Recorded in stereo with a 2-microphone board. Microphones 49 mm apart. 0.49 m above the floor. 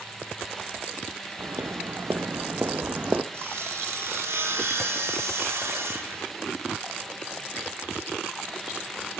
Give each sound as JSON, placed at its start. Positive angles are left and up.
{"t": 1.4, "sound": "footsteps", "side_deg": -60, "distance_m": 3.0}
{"t": 3.3, "sound": "sawing", "side_deg": -60, "distance_m": 6.5}